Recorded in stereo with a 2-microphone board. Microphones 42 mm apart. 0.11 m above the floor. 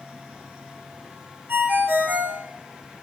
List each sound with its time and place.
1.5 s a ringtone: 60° right (ahead or behind), 2 m